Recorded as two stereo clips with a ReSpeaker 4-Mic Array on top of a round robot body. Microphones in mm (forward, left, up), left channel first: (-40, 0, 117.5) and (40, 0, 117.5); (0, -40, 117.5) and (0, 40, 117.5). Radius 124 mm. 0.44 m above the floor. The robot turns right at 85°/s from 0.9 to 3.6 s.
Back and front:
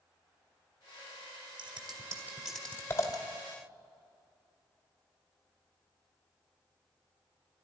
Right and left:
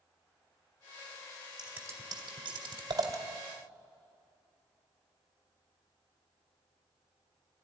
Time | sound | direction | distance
1.6 | scissors | 15° left | 2.0 m